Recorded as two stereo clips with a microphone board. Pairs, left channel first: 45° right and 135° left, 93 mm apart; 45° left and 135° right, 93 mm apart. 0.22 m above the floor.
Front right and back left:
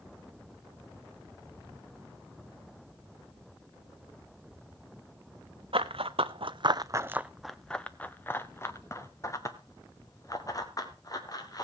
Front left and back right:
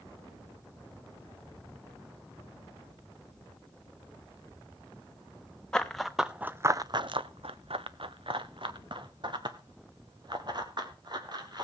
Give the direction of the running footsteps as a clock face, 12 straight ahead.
8 o'clock.